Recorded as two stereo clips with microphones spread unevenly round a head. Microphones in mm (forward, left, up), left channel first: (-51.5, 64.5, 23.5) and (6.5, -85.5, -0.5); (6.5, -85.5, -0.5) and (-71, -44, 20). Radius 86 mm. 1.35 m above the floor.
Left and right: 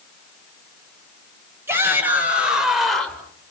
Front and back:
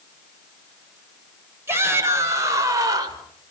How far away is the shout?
About 6.5 m.